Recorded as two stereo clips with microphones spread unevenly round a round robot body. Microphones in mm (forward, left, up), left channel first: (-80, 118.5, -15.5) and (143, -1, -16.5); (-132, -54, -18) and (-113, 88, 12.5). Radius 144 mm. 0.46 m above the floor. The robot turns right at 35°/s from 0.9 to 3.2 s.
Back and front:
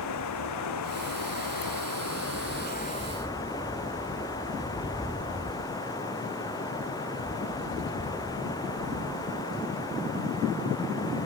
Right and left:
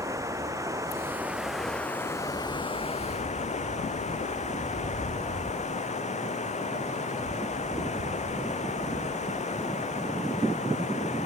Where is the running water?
150° left; by 11.3 s 130° right.